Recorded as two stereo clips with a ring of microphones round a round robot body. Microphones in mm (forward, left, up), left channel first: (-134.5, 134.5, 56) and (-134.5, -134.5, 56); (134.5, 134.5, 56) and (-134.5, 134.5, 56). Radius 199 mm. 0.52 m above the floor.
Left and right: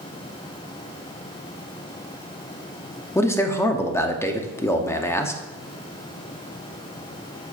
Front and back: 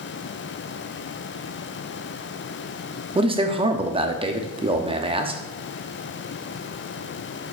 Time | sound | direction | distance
3.1 | a man speaking | 155° left | 0.9 m